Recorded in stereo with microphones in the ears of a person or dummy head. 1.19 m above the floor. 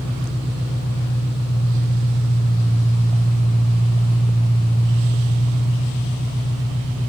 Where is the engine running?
50° left (ahead or behind), 5 m.